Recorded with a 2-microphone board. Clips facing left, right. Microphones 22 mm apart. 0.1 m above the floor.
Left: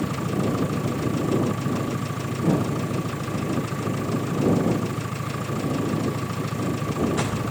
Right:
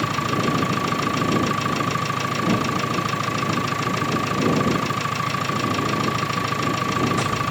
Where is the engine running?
55° right (ahead or behind).